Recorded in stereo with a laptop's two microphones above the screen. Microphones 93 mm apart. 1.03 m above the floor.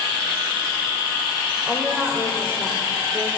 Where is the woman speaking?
15° right (ahead or behind), 4 m; by 3.3 s 40° right (ahead or behind), 2.5 m.